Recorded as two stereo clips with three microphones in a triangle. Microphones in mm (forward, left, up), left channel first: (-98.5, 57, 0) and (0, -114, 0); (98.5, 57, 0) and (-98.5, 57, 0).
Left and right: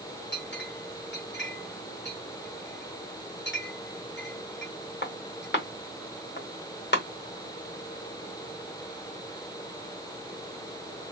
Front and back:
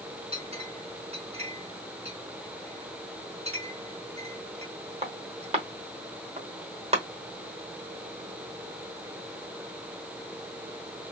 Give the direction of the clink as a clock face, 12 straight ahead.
8 o'clock.